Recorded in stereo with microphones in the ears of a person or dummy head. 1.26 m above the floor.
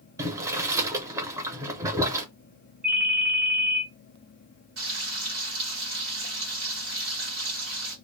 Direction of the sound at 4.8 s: 60° right (ahead or behind).